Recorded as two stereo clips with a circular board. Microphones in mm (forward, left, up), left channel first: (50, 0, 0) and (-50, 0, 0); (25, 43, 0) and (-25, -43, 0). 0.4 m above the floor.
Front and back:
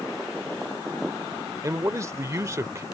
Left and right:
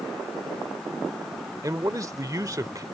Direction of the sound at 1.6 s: 145° right.